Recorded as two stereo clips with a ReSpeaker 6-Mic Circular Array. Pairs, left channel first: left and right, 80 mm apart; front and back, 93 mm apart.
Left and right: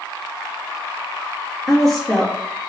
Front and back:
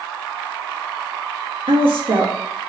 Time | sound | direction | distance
1.7 | a woman speaking | straight behind | 1.1 m